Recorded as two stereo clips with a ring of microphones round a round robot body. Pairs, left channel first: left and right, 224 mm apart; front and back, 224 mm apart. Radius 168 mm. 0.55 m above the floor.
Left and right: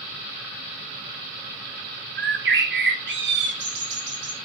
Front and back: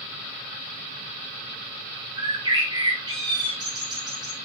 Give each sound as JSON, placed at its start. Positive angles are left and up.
{"t": 2.2, "sound": "a bird", "azimuth_deg": -110, "distance_m": 2.0}